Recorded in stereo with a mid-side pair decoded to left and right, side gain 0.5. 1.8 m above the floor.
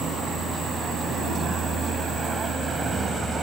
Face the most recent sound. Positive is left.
turn(degrees=-35)